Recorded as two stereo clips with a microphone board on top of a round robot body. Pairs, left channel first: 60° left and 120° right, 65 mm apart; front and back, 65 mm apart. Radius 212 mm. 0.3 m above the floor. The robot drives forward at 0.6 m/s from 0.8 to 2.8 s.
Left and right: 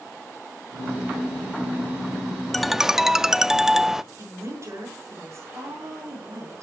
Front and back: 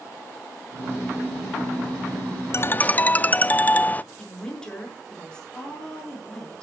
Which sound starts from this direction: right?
A woman speaking, at 4.2 s.